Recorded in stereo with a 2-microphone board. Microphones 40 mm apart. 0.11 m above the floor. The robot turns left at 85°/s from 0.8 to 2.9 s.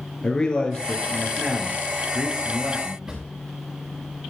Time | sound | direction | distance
0.2 | a man speaking | 30° left | 2 m
3.1 | a drawer | 15° right (ahead or behind) | 3.5 m